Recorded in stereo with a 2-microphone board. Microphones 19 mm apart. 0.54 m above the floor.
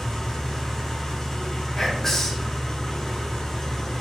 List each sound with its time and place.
0.0 s an engine running: 25° left (ahead or behind), 1.3 m
1.8 s whispering: 20° left (ahead or behind), 0.6 m